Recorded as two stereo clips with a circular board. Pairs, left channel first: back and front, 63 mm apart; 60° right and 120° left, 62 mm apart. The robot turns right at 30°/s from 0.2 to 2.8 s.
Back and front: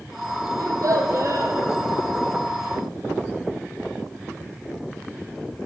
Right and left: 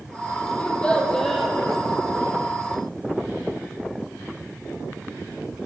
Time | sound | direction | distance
0.6 | a child speaking | 5° left | 2 m